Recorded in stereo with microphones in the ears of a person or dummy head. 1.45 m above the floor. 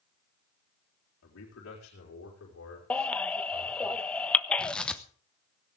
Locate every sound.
1.2 s a man speaking: 80° left, 4 m; by 3.9 s 70° left (ahead or behind), 5.5 m
2.9 s a baby crying: 5° left (ahead or behind), 1.1 m
4.6 s tearing paper: 5° left (ahead or behind), 1.0 m